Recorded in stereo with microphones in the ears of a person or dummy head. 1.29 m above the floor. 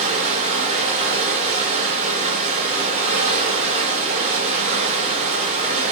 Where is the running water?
35° right (ahead or behind), 1.1 m.